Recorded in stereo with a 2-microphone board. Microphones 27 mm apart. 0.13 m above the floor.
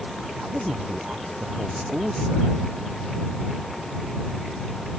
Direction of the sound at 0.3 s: 55° right (ahead or behind).